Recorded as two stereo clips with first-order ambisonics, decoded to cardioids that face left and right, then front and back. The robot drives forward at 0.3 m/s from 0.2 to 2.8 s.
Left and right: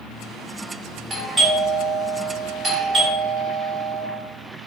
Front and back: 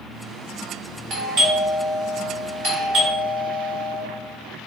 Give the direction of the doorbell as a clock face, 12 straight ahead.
5 o'clock.